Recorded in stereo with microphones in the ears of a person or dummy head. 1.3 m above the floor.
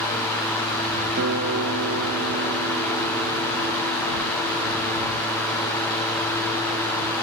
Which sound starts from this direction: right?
A guitar, at 1.2 s.